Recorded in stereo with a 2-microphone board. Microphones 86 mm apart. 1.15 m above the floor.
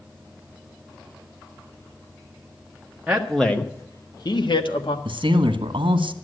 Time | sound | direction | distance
3.1 | a man speaking | 10° right (ahead or behind) | 1.2 m
5.0 | a man speaking | 80° right | 1.4 m